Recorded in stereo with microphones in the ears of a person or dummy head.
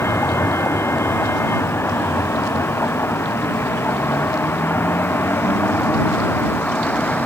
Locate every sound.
0.0 s a vehicle: 15° left (ahead or behind); by 7.3 s 10° left (ahead or behind)